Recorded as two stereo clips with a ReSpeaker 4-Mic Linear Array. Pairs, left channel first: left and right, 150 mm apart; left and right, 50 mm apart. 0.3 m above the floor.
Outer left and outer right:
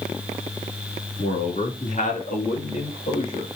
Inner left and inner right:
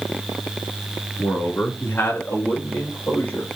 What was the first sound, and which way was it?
A man speaking, 60° left (ahead or behind).